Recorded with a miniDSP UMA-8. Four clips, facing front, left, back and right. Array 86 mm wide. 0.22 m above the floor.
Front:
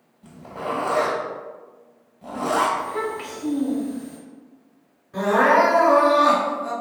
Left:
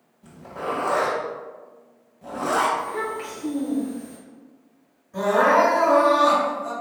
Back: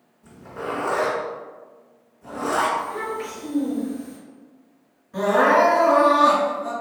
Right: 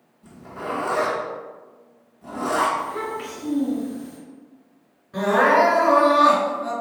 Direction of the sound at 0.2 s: 35° left.